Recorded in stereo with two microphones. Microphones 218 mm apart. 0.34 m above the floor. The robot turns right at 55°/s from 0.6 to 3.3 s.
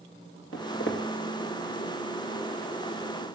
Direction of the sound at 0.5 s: 75° left (ahead or behind).